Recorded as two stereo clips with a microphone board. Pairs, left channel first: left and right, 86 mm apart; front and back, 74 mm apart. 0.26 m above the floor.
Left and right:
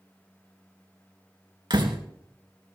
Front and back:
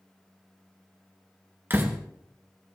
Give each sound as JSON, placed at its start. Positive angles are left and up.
{"t": 1.7, "sound": "a door slam", "azimuth_deg": -120, "distance_m": 2.5}